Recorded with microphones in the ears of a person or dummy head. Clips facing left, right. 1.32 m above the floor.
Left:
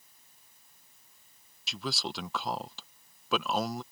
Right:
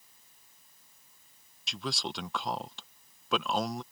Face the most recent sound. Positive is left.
turn(degrees=0)  # may be behind; listen again after turning